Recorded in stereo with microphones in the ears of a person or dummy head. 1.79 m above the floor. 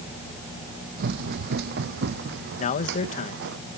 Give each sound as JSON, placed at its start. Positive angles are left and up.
{"t": 1.0, "sound": "running footsteps", "side_deg": -55}
{"t": 2.6, "sound": "a man speaking", "side_deg": 40}